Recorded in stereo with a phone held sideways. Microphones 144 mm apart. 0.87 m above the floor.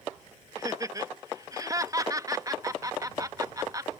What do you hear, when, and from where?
0.6 s laughter: 25° right (ahead or behind)